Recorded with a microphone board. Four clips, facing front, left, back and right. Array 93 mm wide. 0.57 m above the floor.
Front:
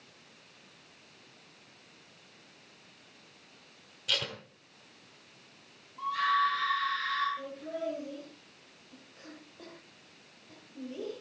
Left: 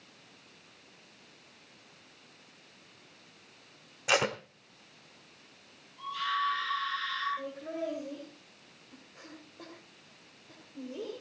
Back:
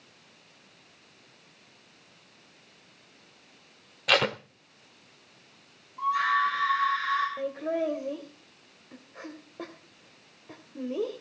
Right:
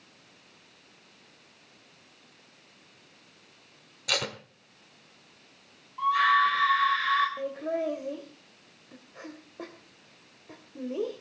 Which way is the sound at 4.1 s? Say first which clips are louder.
Left 5 dB, back 12 dB; 155° left.